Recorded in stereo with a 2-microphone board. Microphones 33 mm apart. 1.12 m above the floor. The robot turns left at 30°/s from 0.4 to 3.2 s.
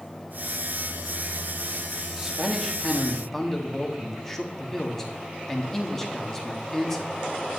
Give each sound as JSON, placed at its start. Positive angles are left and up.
{"t": 2.2, "sound": "a man speaking", "azimuth_deg": -160, "distance_m": 2.0}